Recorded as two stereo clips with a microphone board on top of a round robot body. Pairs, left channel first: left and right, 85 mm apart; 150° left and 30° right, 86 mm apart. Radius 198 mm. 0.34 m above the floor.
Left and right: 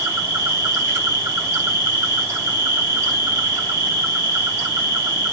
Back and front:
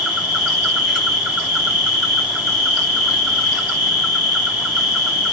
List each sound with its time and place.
0.0 s an insect: 105° right, 1.6 m